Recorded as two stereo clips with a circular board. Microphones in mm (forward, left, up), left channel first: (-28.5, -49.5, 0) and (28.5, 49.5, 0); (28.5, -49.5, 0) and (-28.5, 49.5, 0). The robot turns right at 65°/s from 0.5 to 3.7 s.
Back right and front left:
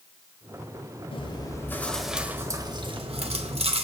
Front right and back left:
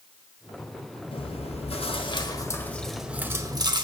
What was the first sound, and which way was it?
Chewing, 90° right.